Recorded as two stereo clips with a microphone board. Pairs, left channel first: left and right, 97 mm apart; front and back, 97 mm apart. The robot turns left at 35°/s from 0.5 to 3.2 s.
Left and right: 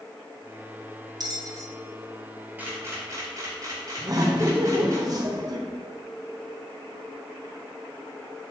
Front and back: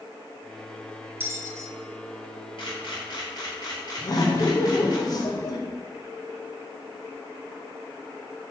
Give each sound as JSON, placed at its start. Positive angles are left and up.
{"t": 1.2, "sound": "a bell", "azimuth_deg": -120, "distance_m": 0.8}
{"t": 2.6, "sound": "a camera shutter", "azimuth_deg": -20, "distance_m": 3.5}
{"t": 4.0, "sound": "laughter", "azimuth_deg": -45, "distance_m": 1.4}